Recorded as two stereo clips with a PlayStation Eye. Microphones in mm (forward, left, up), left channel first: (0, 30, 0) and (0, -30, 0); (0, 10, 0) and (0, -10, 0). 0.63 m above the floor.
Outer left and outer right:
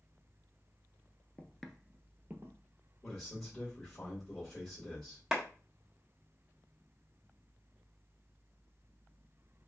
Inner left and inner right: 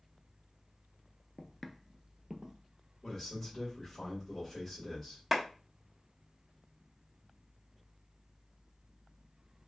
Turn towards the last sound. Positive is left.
turn(degrees=-10)  # may be behind; listen again after turning